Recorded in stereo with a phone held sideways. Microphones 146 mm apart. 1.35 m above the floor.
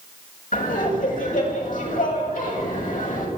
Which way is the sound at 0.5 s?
70° left (ahead or behind).